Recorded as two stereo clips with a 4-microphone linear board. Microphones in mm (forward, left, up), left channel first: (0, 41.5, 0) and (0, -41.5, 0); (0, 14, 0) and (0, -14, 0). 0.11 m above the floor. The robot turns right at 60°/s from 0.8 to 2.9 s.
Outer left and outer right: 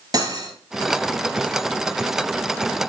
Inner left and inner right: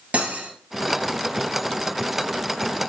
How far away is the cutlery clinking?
About 1.3 m.